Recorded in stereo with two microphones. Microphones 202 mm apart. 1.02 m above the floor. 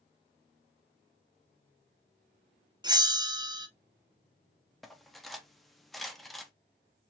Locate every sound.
2.8 s a bell: 20° right (ahead or behind), 0.5 m
4.8 s cutlery clinking: centre (ahead or behind), 0.6 m